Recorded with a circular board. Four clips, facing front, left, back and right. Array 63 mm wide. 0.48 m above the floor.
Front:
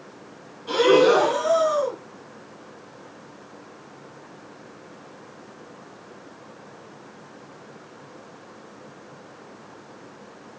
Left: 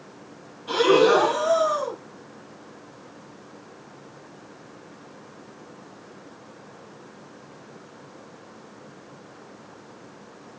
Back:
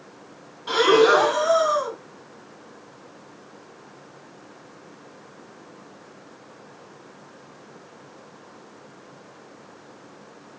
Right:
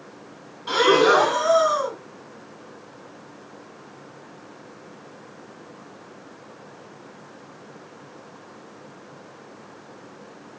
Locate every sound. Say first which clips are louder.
0.7 s breathing: right 1 dB, even; 120° right, 1.9 m